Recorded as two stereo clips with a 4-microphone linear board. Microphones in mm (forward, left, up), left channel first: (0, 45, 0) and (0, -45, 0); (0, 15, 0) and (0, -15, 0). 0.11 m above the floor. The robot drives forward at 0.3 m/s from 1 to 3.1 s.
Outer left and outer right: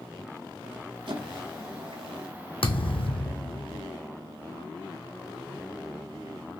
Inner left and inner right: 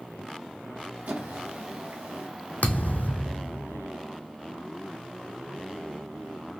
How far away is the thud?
About 0.7 m.